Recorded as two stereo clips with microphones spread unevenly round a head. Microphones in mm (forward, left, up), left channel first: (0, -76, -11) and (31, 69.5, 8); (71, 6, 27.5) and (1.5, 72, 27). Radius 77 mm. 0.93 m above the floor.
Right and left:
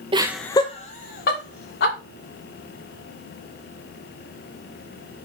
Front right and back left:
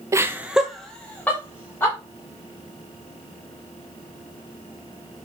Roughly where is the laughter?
Behind left.